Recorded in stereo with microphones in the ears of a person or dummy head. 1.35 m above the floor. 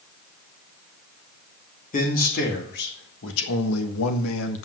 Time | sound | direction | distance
1.9 | a man speaking | 45° left (ahead or behind) | 2.5 m